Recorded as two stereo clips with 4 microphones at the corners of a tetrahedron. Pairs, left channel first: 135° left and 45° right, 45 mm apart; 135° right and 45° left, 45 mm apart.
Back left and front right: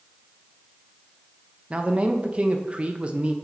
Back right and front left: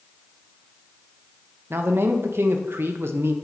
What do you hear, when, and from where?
1.7 s a man speaking: 15° left, 0.7 m